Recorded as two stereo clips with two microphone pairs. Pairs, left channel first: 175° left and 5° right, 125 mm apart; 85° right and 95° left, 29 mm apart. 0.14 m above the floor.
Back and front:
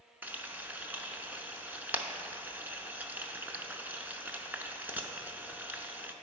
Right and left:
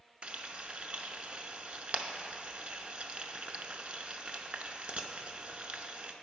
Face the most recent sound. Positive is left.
turn(degrees=70)